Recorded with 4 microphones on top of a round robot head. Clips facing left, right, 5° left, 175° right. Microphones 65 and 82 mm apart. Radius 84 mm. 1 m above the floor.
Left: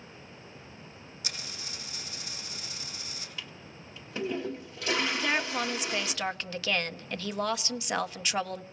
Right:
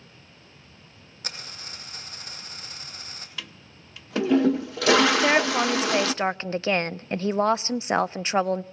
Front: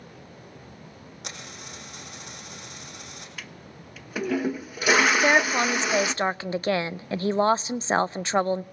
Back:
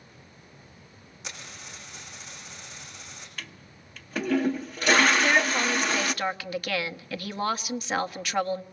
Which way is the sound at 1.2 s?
40° right.